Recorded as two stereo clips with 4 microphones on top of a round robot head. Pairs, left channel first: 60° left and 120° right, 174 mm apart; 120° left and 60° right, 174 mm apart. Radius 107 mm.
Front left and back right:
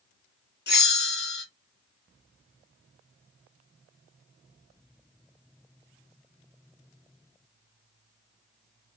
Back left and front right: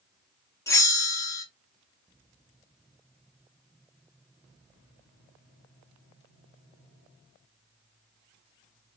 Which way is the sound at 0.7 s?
50° left.